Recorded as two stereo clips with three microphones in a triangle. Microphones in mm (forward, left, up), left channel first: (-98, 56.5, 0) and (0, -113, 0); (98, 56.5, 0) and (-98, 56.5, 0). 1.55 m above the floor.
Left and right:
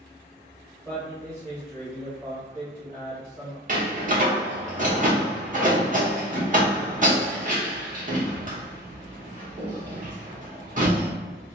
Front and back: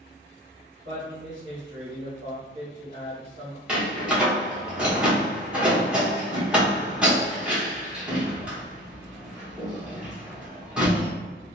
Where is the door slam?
95° right, 1.0 m.